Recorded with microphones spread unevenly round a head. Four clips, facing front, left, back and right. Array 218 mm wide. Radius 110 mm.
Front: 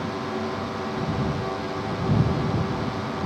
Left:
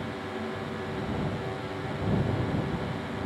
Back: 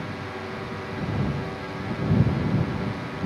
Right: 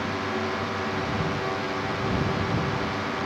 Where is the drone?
35° right.